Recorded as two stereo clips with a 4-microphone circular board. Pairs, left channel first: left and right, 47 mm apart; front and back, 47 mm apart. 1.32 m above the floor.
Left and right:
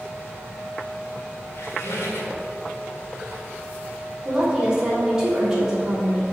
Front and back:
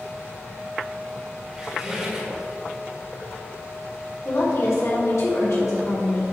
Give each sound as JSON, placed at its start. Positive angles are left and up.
{"t": 1.5, "sound": "a squeak", "azimuth_deg": 105, "distance_m": 1.9}
{"t": 4.2, "sound": "a woman speaking", "azimuth_deg": -15, "distance_m": 3.0}